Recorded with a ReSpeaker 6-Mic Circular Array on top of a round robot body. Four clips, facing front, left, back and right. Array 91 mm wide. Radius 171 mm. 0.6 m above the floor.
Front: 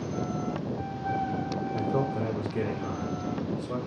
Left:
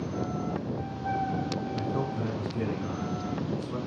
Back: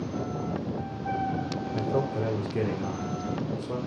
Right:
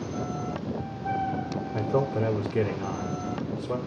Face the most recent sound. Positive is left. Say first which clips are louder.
# right 9 dB, back 1 dB
turn(degrees=-105)